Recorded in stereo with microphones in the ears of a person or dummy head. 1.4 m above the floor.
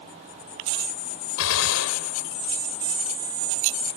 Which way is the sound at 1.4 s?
85° left.